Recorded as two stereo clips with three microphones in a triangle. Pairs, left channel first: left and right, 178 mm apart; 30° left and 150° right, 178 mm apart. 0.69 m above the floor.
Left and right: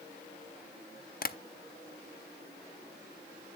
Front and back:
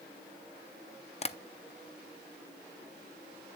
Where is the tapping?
75° left, 0.6 m.